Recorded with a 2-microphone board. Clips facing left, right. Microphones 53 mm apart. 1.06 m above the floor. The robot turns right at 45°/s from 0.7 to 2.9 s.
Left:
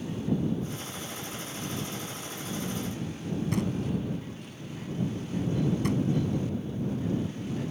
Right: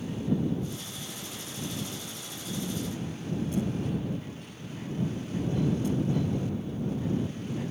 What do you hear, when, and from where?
3.5 s knocking: 60° left (ahead or behind)